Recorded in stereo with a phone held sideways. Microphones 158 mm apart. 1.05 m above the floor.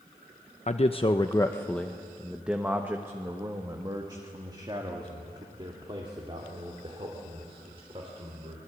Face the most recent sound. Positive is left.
turn(degrees=-40)  # may be behind; listen again after turning